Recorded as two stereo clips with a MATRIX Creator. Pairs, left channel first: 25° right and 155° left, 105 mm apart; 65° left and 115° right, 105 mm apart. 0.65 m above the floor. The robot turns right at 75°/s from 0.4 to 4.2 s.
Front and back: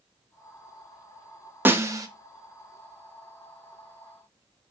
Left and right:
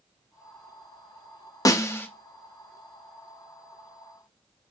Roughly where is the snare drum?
Left.